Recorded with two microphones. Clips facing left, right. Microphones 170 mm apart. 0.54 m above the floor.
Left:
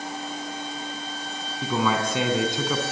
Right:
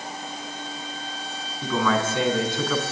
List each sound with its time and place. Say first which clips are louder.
1.6 s a man speaking: right 1 dB; 15° left (ahead or behind), 5 m